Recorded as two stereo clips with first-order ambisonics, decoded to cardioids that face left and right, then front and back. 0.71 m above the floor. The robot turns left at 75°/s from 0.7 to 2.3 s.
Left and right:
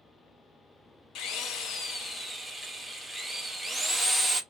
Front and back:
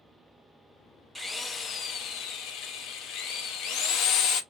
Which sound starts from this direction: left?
A drill, at 1.1 s.